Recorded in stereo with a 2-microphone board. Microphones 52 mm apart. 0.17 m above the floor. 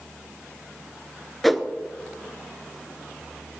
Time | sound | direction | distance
1.4 | a whoosh | centre (ahead or behind) | 0.9 m